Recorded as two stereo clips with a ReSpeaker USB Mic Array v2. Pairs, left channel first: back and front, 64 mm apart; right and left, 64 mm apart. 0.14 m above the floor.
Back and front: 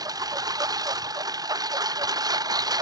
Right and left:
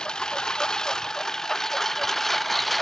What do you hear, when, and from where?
0.0 s a lawn mower: 10° right; by 2.8 s straight ahead